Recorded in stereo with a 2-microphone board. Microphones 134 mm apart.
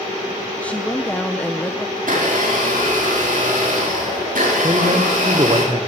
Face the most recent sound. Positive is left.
turn(degrees=-40)  # may be behind; listen again after turning